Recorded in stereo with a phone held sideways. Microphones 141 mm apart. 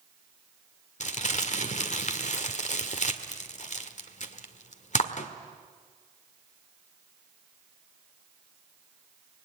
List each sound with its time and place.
1.0 s crumpling: 55° left (ahead or behind), 1.7 m